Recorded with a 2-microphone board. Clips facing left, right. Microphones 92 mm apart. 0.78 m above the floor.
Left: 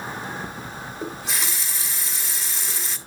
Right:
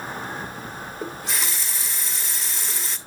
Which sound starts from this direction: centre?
A running tap, at 1.0 s.